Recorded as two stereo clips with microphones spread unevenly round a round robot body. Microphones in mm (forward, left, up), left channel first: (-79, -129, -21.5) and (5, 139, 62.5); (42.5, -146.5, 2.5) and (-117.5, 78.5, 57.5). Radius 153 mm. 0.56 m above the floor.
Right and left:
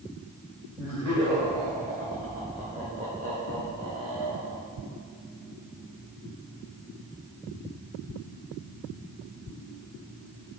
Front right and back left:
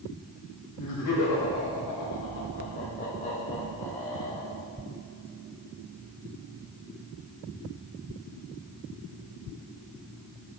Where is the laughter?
25° right, 2.5 m; by 4.6 s 50° left, 0.9 m.